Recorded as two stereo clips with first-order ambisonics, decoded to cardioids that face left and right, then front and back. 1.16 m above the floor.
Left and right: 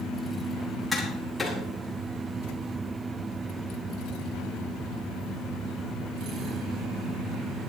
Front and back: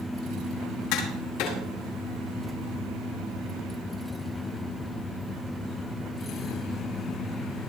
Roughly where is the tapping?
Ahead.